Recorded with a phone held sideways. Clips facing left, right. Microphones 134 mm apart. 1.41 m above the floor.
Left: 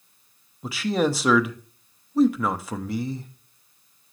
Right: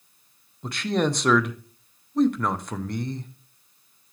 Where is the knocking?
No knocking in this recording.